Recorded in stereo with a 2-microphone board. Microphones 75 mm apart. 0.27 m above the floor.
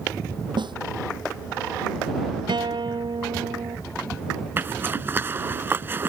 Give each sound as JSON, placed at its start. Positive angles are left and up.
{"t": 0.6, "sound": "a snare drum", "side_deg": -75}
{"t": 2.5, "sound": "a guitar", "side_deg": -75}
{"t": 4.6, "sound": "a zipper", "side_deg": -30}